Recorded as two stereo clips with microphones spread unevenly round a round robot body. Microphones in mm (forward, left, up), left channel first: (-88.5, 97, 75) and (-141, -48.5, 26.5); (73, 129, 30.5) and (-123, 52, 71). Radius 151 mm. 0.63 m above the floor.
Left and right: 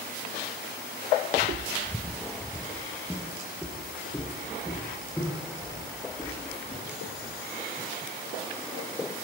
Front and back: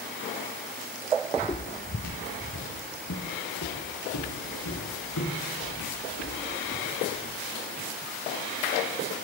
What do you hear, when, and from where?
1.4 s footsteps: 65° right, 0.9 m; by 7.4 s 5° right, 10 m